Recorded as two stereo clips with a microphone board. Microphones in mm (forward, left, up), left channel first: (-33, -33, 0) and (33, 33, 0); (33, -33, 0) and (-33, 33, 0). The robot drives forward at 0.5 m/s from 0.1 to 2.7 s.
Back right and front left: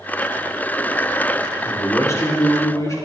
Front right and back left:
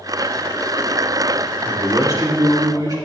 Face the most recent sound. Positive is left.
turn(degrees=175)